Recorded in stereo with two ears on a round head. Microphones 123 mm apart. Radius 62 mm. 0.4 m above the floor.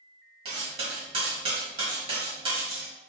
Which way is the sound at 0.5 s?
40° right (ahead or behind).